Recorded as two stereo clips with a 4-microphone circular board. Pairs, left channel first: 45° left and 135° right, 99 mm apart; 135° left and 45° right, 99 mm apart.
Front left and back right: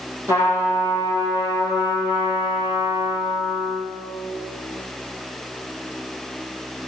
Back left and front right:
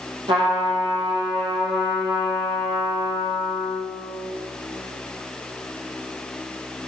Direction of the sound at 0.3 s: 70° right.